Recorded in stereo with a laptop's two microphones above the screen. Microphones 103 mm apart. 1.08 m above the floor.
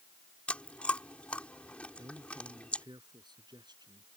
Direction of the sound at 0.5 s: 15° left (ahead or behind).